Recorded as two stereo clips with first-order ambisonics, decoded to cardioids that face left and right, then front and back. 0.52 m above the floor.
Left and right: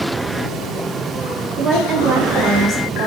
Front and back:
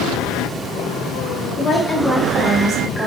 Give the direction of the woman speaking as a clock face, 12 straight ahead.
2 o'clock.